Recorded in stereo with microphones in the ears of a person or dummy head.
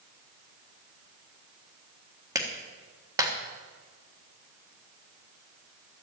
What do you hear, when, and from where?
2.4 s a clap: 15° right (ahead or behind), 1.5 m